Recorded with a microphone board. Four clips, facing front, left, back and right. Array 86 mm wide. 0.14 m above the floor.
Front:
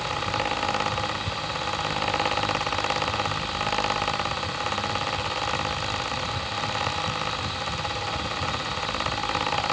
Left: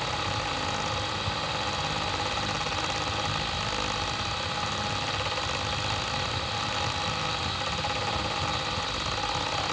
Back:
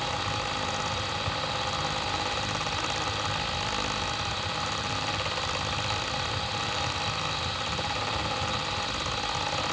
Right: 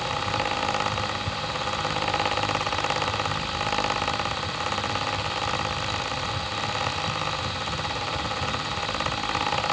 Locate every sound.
Only background noise.